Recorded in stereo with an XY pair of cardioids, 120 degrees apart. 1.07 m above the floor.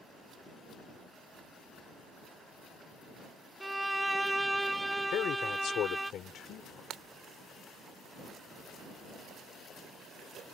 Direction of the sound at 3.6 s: 10° right.